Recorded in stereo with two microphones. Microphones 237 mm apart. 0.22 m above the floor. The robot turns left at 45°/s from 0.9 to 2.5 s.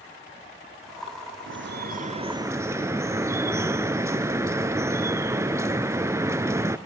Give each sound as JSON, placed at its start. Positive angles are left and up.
{"t": 1.5, "sound": "dripping", "azimuth_deg": -120, "distance_m": 0.6}